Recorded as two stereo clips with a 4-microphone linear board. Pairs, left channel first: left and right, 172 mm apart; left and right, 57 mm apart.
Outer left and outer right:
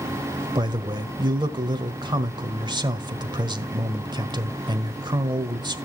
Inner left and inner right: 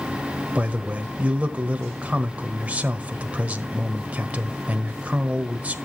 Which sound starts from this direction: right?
A man speaking, at 0.6 s.